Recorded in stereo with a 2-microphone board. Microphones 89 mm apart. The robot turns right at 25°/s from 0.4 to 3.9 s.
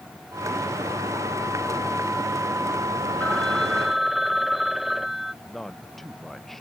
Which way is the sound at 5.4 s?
5° left (ahead or behind).